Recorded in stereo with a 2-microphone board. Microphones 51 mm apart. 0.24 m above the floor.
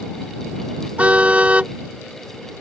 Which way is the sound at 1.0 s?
25° right (ahead or behind).